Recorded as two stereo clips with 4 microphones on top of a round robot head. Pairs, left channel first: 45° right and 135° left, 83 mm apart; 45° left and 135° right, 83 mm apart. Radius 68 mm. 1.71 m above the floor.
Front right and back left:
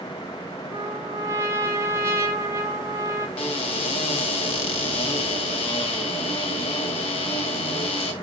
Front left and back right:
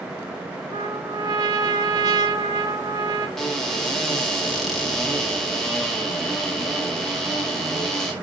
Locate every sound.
0.7 s a trumpet: 175° right, 0.9 m
3.4 s a cupboard door: 40° right, 1.9 m